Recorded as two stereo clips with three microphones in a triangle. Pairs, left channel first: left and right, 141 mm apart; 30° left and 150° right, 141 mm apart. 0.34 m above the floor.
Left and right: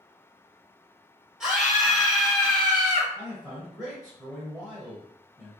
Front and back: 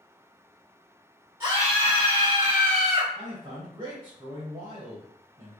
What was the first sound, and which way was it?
A scream, 175° right.